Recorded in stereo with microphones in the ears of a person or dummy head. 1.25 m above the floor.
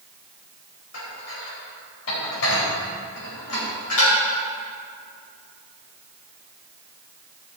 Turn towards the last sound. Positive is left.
turn(degrees=80)